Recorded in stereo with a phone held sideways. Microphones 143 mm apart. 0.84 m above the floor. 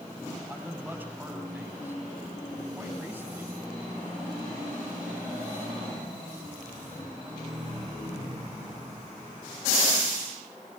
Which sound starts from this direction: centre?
A man speaking, at 0.5 s.